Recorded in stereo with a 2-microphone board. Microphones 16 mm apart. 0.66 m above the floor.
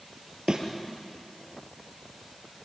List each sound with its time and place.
0.5 s a thud: 50° right (ahead or behind), 3.5 m